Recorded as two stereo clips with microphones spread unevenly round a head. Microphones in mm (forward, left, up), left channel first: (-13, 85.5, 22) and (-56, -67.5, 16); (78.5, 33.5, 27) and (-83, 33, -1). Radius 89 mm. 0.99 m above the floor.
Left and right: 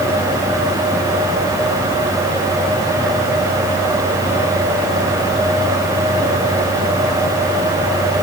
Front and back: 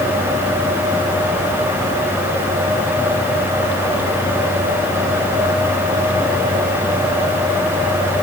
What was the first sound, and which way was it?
Only background noise.